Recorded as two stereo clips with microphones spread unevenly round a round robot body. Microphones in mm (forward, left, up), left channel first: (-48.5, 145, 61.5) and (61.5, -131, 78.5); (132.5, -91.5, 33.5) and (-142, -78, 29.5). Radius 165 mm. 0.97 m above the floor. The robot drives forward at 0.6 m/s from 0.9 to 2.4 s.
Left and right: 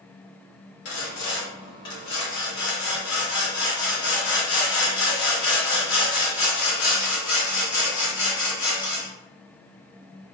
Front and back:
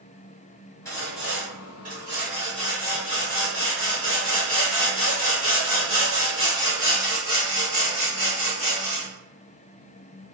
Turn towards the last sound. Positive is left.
turn(degrees=130)